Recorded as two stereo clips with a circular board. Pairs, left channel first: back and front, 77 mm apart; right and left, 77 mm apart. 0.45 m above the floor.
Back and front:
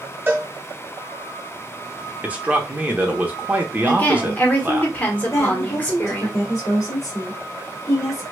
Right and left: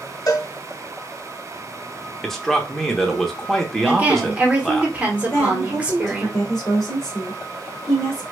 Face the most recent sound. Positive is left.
turn(degrees=-135)